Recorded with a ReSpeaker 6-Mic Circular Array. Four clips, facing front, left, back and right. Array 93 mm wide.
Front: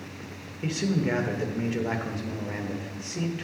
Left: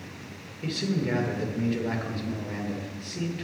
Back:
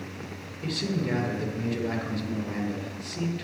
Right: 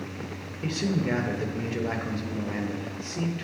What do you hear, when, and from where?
0.6 s a man speaking: 25° right, 1.3 m